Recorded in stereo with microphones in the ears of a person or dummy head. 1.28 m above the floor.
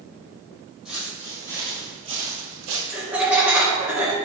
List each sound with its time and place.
0.8 s footsteps: 5° right (ahead or behind), 2 m; by 2.8 s 45° right (ahead or behind), 1.7 m
2.9 s laughter: 10° right (ahead or behind), 1.6 m